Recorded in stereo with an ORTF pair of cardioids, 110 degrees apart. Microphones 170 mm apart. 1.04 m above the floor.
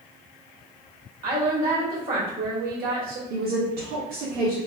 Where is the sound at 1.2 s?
65° right, 1.8 m.